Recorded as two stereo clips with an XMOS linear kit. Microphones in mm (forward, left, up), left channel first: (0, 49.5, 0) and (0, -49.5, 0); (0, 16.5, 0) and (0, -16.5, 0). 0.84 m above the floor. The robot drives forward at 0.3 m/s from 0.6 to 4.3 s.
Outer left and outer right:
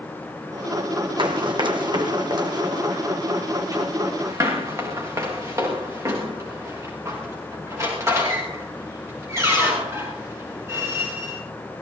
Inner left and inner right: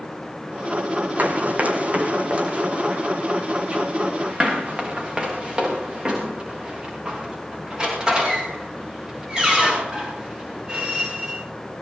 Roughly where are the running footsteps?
Right.